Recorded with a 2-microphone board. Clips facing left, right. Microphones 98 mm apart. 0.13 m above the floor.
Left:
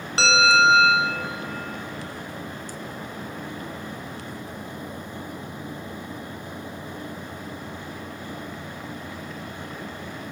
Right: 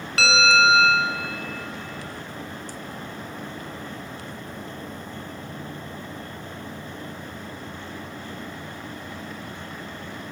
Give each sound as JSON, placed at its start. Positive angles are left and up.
{"t": 0.2, "sound": "a bell", "side_deg": 30, "distance_m": 0.9}